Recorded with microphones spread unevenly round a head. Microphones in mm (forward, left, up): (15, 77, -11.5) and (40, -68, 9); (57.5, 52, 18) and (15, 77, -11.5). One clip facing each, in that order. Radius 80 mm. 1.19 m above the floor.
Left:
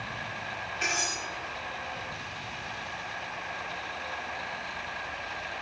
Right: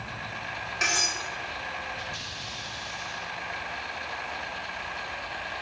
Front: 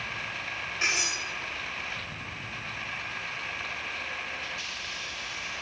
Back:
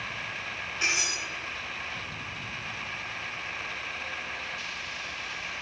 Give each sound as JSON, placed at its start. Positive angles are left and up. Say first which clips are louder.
{"t": 0.8, "sound": "cutlery clinking", "louder": "right 2 dB, even", "azimuth_deg": -100, "distance_m": 3.0}